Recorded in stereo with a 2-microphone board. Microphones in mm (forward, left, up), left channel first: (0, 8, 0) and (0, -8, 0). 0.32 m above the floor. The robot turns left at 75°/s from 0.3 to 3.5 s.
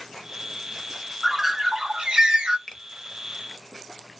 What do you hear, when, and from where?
1.2 s a bird: straight ahead, 0.6 m; by 2.6 s 105° right, 0.6 m
2.7 s a finger snap: 25° left (ahead or behind), 0.7 m